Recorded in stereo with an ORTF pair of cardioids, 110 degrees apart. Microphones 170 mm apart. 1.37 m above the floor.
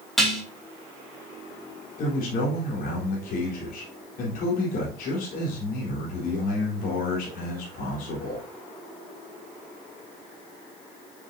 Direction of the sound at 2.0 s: 60° left.